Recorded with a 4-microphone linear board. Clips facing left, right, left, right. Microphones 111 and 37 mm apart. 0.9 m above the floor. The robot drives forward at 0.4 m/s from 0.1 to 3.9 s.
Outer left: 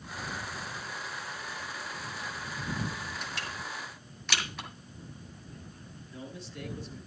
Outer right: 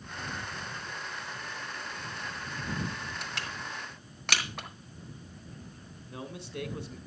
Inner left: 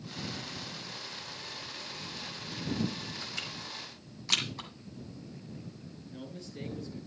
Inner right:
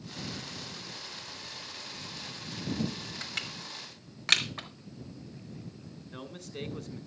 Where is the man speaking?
85° right, 3.5 m.